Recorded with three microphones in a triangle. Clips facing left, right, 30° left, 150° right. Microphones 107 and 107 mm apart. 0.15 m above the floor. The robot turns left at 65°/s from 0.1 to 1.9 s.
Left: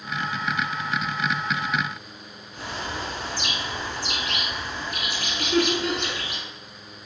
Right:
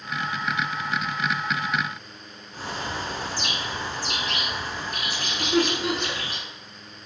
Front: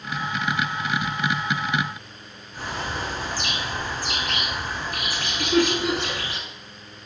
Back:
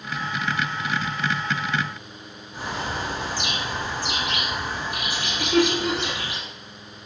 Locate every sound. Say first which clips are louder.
2.5 s a bird: right 1 dB, back 1 dB; 90° right, 0.6 m
5.4 s laughter: even, even; 15° right, 1.3 m